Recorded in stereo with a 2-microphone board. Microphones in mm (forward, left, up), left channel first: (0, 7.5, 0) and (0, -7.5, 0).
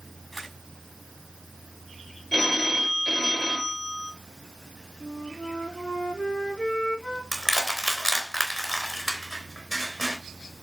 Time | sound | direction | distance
0.3 | a camera shutter | 20° left (ahead or behind) | 5.5 m
2.3 | a phone ringing | 10° left (ahead or behind) | 3.5 m
5.0 | a flute | 80° left | 3 m
7.3 | crushing | 10° left (ahead or behind) | 3.5 m